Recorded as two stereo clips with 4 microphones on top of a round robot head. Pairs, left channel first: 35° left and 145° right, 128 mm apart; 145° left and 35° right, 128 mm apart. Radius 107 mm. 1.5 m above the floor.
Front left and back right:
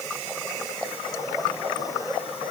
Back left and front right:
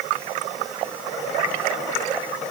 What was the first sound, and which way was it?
Only background noise.